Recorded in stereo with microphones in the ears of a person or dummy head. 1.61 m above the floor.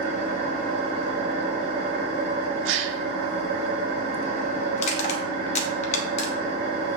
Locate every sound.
0.0 s an engine running: 30° right (ahead or behind), 2.5 m
2.6 s a gasp: 75° right (ahead or behind), 0.7 m
4.8 s crushing: 35° left (ahead or behind), 0.7 m